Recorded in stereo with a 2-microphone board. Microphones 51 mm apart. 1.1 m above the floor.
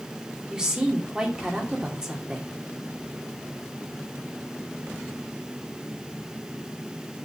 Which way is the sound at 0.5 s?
20° right (ahead or behind).